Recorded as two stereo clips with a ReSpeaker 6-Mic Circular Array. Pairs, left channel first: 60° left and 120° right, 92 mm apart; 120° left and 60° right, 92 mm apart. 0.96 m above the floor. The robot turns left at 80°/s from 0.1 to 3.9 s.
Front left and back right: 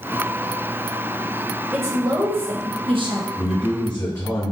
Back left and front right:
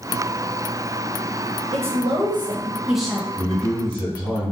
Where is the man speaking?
155° left, 1.7 m; by 4.5 s 110° left, 1.7 m.